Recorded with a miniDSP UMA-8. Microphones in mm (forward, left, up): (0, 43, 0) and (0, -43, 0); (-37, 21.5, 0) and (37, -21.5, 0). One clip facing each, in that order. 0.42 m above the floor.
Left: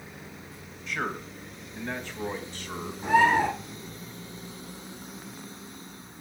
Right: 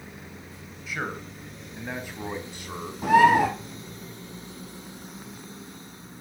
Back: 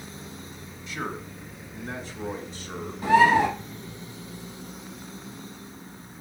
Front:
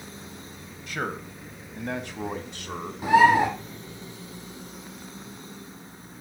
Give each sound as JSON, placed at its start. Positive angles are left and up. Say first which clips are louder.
{"t": 0.9, "sound": "a man speaking", "louder": "left 1 dB, front 2 dB", "azimuth_deg": -5, "distance_m": 2.5}
{"t": 3.0, "sound": "a bird", "louder": "right 4 dB, front 1 dB", "azimuth_deg": -105, "distance_m": 4.5}